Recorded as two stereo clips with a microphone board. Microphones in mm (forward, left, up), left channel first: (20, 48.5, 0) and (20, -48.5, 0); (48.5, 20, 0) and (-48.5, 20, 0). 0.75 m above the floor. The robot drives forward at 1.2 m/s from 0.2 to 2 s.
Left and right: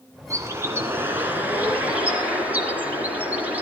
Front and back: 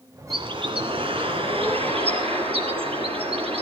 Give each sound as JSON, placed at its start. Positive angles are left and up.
{"t": 0.3, "sound": "a bird", "azimuth_deg": -150, "distance_m": 2.0}